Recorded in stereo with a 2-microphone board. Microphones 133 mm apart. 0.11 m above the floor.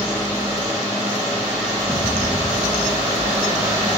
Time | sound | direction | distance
1.8 | an explosion | 5° right (ahead or behind) | 2 m